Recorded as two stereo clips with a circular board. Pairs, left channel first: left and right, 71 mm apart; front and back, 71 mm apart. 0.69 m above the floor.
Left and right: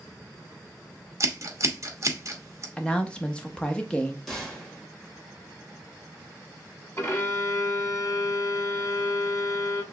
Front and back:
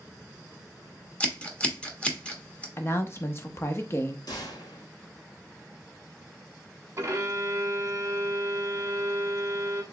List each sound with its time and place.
1.2 s scissors: 70° right, 1.0 m
2.8 s a woman speaking: 25° left, 0.8 m
4.3 s a gunshot: 5° left, 2.0 m
7.0 s a violin: 135° left, 1.0 m